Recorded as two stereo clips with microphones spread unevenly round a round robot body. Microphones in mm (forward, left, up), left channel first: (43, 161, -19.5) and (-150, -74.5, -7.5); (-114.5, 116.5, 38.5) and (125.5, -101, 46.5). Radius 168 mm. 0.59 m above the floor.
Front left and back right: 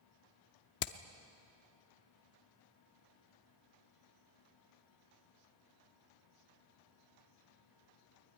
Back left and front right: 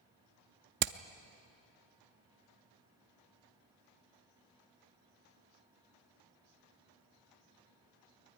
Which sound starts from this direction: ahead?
Hammering, at 0.8 s.